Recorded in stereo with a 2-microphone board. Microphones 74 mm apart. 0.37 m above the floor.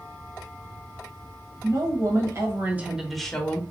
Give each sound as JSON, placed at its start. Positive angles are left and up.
{"t": 1.6, "sound": "a woman speaking", "side_deg": -55, "distance_m": 1.8}